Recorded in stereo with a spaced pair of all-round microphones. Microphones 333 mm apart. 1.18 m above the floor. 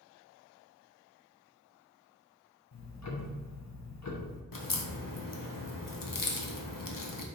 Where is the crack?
70° left (ahead or behind), 0.6 m.